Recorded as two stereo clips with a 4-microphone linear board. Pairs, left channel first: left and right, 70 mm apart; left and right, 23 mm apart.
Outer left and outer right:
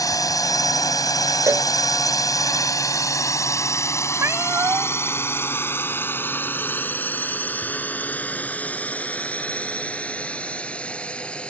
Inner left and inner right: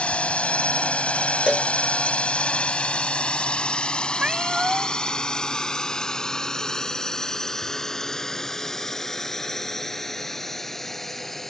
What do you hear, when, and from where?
0.0 s a drone: 60° left (ahead or behind); by 11.5 s 15° left (ahead or behind)
1.5 s a cowbell: 45° right (ahead or behind)
4.2 s a cat meowing: 45° right (ahead or behind)